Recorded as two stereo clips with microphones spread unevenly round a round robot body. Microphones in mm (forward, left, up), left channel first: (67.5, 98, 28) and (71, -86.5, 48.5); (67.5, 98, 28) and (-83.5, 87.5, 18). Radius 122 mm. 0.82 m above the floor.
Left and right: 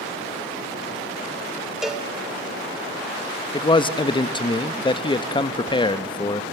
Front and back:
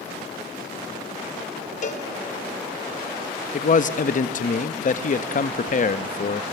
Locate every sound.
1.8 s a cowbell: 5° left, 1.3 m
3.5 s a man speaking: 35° left, 0.7 m